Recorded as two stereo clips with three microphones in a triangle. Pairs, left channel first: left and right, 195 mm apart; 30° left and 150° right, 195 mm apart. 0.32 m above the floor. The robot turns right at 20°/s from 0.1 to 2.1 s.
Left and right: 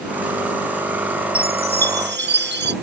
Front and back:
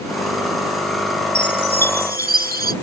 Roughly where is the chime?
Behind right.